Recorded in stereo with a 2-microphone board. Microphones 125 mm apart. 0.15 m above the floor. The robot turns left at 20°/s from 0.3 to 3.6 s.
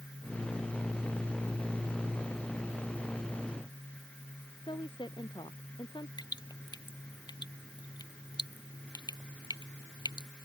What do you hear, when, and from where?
4.6 s a woman speaking: 40° left (ahead or behind)
6.2 s dripping: 35° left (ahead or behind)